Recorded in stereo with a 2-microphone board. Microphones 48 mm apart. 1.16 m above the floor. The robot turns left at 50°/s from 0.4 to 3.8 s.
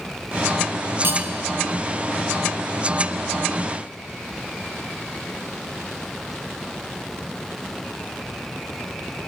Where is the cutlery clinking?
55° right (ahead or behind), 1.2 m; by 1.2 s 45° right (ahead or behind), 1.2 m.